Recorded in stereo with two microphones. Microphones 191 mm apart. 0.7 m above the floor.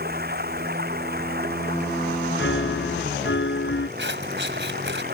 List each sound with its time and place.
0.0 s running water: 55° right (ahead or behind)
2.4 s a piano: 80° left
4.0 s scissors: 75° right (ahead or behind)